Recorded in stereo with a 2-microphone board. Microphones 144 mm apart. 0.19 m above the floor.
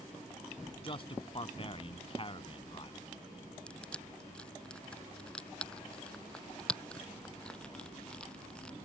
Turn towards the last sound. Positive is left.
turn(degrees=5)  # may be behind; listen again after turning